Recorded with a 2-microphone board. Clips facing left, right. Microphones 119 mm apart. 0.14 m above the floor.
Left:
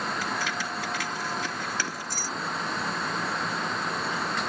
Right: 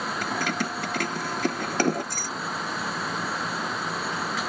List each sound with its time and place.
0.2 s keys jangling: 50° right (ahead or behind)